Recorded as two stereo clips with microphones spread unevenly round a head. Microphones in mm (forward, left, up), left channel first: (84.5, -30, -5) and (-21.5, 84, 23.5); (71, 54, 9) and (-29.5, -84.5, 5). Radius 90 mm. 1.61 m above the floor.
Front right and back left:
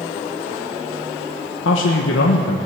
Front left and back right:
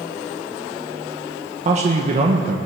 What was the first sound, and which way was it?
A man speaking, 75° right.